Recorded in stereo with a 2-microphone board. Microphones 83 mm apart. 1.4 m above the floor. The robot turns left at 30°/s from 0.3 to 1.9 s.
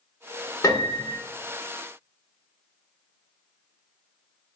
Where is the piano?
40° left (ahead or behind), 1.3 m; by 1.2 s 45° left (ahead or behind), 1.3 m.